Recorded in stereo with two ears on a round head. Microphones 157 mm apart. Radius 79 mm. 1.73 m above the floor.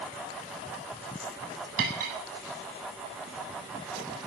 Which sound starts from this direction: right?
Cutlery clinking, at 1.8 s.